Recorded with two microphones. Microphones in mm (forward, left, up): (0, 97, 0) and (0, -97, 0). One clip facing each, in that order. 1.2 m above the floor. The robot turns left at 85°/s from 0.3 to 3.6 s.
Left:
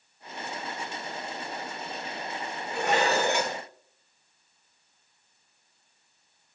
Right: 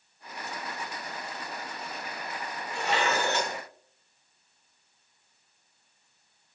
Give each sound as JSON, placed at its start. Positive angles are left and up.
{"t": 2.7, "sound": "dishes clattering", "azimuth_deg": 65, "distance_m": 3.0}